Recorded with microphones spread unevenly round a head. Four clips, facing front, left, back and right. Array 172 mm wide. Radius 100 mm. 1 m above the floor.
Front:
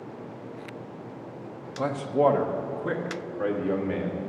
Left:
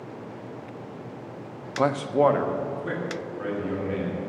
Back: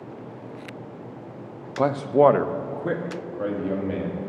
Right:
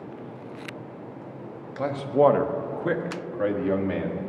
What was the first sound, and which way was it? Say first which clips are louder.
A man speaking: even, back 6 dB; 145° left.